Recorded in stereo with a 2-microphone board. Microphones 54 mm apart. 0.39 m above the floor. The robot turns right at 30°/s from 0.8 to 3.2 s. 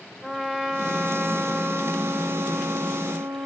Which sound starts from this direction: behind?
A trumpet, at 0.2 s.